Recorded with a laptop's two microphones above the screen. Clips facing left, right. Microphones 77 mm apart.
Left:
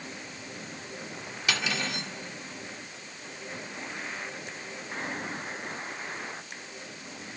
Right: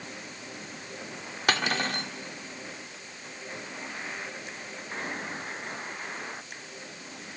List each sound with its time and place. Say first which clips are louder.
1.5 s cutlery clinking: right 4 dB; 50° right (ahead or behind), 1.8 m